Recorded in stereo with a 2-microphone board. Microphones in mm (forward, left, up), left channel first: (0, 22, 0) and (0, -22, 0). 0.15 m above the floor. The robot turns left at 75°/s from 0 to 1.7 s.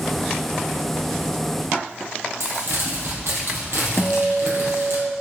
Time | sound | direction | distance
2.4 | crumpling | 70° right (ahead or behind) | 4 m
4.0 | a guitar | 15° left (ahead or behind) | 1.3 m